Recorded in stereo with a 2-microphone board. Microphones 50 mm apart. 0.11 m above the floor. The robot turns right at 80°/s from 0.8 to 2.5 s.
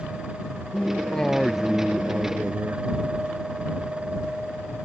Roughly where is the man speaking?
Behind left.